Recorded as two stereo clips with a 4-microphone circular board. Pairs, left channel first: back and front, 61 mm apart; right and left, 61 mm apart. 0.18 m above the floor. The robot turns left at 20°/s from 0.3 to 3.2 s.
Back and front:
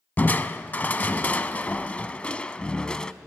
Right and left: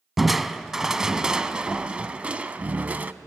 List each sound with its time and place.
0.2 s crushing: 175° left, 0.5 m; by 3.1 s 115° left, 0.5 m